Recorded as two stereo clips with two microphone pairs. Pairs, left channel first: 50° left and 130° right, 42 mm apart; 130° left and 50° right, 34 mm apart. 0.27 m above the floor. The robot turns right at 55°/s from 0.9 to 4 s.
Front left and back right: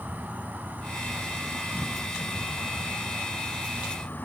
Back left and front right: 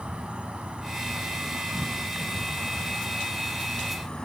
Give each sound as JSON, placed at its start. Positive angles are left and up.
{"t": 0.0, "sound": "an insect", "azimuth_deg": -95, "distance_m": 2.5}